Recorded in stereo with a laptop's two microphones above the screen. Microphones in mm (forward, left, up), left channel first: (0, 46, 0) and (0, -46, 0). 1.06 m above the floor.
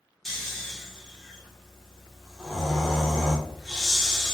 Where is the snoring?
5° left (ahead or behind), 0.6 m.